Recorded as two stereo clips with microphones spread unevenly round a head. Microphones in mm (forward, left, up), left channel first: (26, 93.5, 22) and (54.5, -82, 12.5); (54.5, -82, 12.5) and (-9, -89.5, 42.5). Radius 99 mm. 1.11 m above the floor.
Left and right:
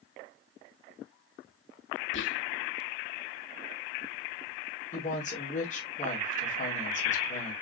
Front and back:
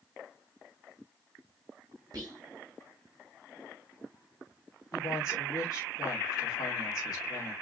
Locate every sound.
2.1 s whispering: 120° left, 1.5 m
4.9 s a woman speaking: 50° left, 2.5 m